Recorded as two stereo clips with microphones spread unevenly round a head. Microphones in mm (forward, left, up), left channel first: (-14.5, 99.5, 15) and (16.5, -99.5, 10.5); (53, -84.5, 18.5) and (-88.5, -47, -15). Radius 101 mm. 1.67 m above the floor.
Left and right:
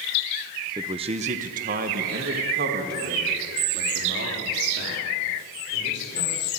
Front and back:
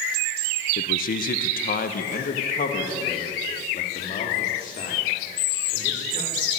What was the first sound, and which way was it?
A man speaking, 10° right.